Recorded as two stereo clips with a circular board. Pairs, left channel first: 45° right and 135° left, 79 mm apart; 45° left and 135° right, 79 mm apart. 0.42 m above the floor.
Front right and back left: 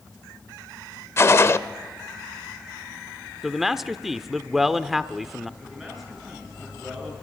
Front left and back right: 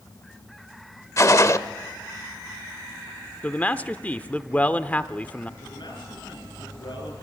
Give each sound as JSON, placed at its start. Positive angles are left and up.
{"t": 1.2, "sound": "a gunshot", "azimuth_deg": 5, "distance_m": 0.7}
{"t": 3.4, "sound": "a man speaking", "azimuth_deg": 55, "distance_m": 0.7}
{"t": 5.6, "sound": "a man speaking", "azimuth_deg": 45, "distance_m": 7.5}